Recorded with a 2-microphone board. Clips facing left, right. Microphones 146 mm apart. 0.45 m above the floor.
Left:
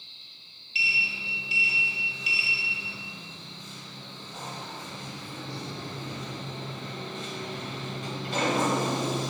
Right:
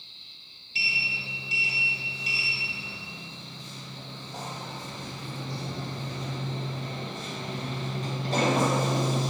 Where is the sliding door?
40° right (ahead or behind), 1.7 m.